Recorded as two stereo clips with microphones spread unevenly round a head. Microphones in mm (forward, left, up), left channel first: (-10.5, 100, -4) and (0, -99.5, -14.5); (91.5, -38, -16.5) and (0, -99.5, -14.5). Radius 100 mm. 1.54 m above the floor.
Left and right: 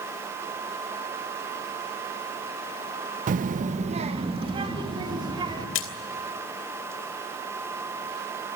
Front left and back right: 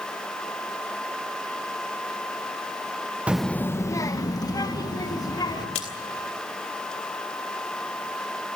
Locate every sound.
3.3 s a child speaking: 75° right, 0.6 m; by 5.7 s 15° right, 3.5 m
5.8 s a splash: 80° left, 2.5 m